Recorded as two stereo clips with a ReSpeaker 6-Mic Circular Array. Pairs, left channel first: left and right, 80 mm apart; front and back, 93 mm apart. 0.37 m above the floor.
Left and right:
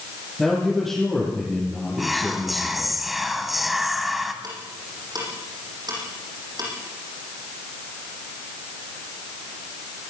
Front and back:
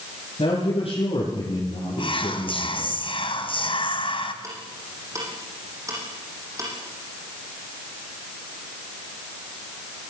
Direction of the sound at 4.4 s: 125° right.